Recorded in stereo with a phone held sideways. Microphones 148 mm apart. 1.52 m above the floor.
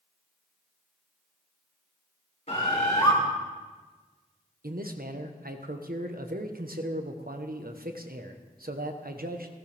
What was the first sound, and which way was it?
A bird, 50° left (ahead or behind).